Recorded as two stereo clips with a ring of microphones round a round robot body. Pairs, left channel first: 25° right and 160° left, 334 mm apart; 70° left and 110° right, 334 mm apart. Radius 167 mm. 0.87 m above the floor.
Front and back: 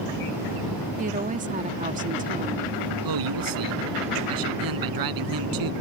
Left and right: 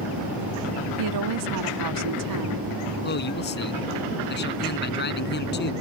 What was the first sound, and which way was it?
A woman speaking, 135° right.